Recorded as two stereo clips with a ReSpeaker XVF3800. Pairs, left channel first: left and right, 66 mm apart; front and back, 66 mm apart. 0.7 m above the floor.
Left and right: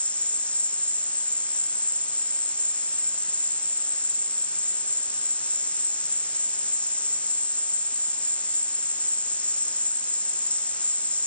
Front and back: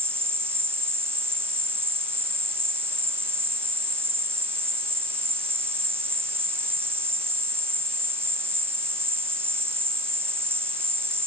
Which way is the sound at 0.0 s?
150° left.